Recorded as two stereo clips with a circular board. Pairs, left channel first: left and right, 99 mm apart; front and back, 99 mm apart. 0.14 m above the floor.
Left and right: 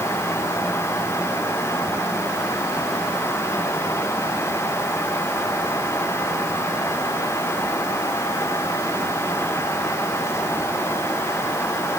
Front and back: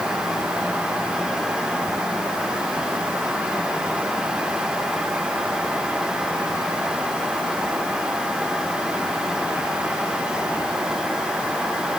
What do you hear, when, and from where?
Only background noise.